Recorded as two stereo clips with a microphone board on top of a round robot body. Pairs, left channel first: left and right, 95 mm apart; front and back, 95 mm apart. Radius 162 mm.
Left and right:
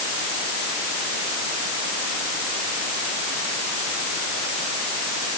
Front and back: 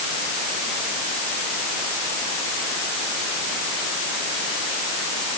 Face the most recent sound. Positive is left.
No sound to turn to.